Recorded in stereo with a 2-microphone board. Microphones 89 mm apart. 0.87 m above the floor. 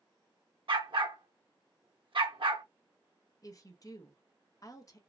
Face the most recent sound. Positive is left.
turn(degrees=40)  # may be behind; listen again after turning